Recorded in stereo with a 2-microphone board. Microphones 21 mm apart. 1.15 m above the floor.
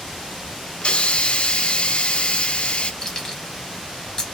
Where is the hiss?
50° left (ahead or behind), 0.5 m.